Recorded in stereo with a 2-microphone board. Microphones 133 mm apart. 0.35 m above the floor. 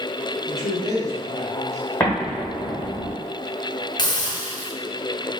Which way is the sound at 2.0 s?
15° left (ahead or behind).